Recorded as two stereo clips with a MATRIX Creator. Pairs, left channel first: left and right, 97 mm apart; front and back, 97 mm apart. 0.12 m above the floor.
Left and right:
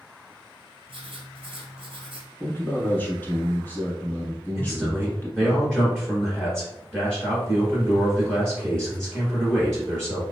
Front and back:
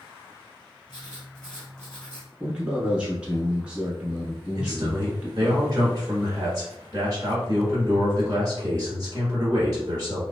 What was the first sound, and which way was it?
Writing, 80° right.